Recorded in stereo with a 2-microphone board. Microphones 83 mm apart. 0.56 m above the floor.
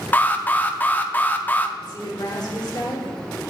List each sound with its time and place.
0.1 s an alarm: 20° left (ahead or behind), 0.6 m
1.8 s a woman speaking: 60° left (ahead or behind), 2.0 m